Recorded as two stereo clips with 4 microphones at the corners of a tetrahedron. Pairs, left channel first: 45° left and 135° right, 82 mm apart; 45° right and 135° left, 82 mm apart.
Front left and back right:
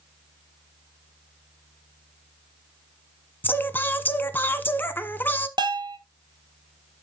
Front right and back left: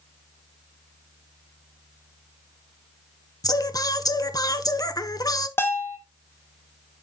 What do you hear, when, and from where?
3.4 s singing: 15° right, 0.8 m
5.6 s a bell: 105° right, 1.3 m